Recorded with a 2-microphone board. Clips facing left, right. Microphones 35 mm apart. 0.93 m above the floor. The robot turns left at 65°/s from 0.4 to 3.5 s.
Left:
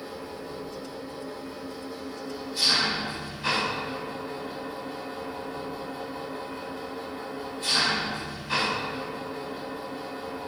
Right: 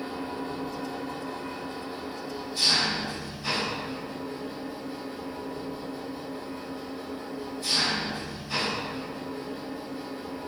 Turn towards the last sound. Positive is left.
turn(degrees=115)